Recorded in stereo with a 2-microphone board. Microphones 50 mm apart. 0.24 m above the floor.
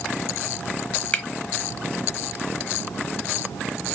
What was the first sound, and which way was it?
A finger snap, 25° left (ahead or behind).